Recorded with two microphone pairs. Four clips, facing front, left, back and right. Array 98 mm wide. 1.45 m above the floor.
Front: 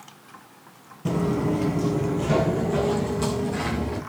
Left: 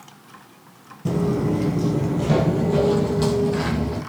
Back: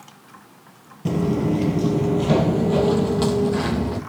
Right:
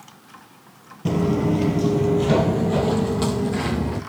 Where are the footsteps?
115° right, 1.5 m; by 4.0 s straight behind, 2.5 m.